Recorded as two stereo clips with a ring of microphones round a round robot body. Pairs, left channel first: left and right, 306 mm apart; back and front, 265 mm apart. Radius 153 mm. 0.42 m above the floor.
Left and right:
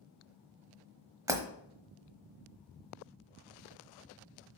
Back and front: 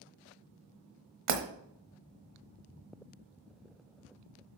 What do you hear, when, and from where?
1.3 s breaking glass: 10° right, 1.1 m